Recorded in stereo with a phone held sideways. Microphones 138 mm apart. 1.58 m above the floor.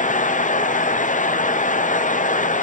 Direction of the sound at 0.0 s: 75° left (ahead or behind).